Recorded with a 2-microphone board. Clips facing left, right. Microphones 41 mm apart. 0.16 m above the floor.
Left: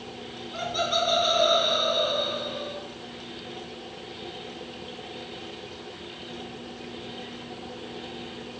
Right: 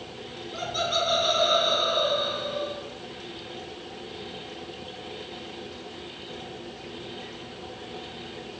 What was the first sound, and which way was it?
Laughter, 5° left (ahead or behind).